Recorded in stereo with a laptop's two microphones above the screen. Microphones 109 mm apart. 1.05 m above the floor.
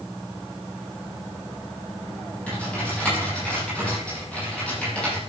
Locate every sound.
2.5 s typing on a keyboard: 10° left (ahead or behind), 7 m